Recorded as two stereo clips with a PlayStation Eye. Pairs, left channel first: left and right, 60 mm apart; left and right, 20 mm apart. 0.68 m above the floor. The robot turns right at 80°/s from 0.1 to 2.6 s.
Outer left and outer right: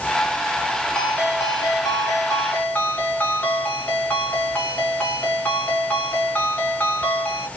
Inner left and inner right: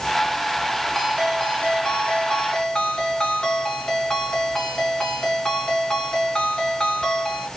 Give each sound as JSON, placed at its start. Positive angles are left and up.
{"t": 0.9, "sound": "a ringtone", "azimuth_deg": 15, "distance_m": 2.5}